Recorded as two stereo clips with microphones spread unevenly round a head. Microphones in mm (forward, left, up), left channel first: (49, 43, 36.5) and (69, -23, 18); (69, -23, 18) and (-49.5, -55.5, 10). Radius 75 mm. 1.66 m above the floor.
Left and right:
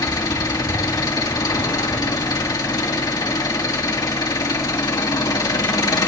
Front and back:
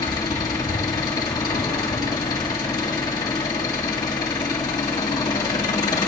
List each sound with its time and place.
0.0 s an engine running: 85° left, 3 m